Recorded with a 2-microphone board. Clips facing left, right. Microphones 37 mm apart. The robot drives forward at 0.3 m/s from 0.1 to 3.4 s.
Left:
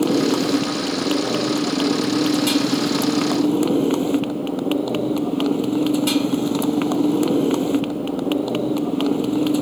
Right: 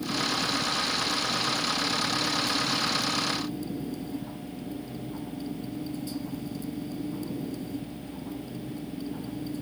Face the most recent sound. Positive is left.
turn(degrees=90)